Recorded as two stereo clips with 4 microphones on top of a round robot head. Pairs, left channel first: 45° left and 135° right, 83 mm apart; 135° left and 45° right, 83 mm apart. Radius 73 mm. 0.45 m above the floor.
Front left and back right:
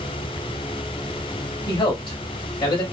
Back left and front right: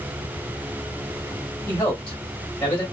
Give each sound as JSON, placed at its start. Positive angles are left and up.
{"t": 1.7, "sound": "a man speaking", "azimuth_deg": 65, "distance_m": 2.5}